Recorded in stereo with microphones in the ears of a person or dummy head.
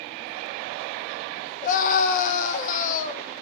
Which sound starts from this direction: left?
A scream, at 1.6 s.